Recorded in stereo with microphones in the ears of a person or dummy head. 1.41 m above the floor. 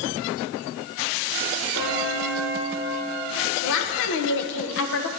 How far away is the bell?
About 2.5 m.